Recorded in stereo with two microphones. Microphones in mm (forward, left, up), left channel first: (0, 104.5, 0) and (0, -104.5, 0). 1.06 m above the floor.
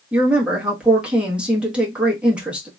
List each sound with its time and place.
0.1 s a woman speaking: 5° right (ahead or behind), 1.2 m